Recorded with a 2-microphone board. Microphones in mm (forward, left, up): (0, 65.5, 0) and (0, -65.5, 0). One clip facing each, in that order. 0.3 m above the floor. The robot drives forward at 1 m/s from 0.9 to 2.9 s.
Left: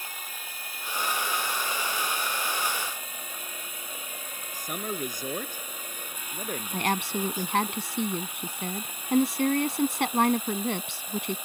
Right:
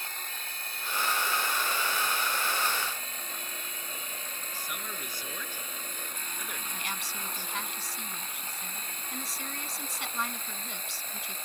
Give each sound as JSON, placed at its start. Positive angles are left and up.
{"t": 0.0, "sound": "running water", "side_deg": 10}
{"t": 4.5, "sound": "a man speaking", "side_deg": 45}
{"t": 6.7, "sound": "a woman speaking", "side_deg": 65}